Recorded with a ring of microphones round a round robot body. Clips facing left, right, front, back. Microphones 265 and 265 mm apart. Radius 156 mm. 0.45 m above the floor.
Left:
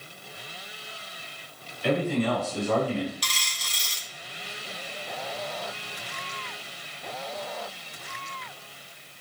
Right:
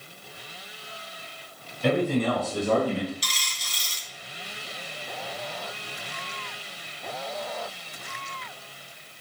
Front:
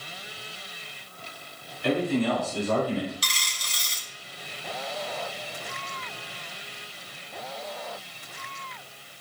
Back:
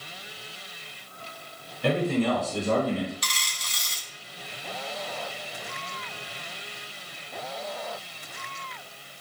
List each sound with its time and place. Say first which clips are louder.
1.8 s a man speaking: right 2 dB, even; 130° right, 5 m; by 3.1 s 125° right, 4 m
3.2 s a dropped coin: even, even; 55° left, 2.5 m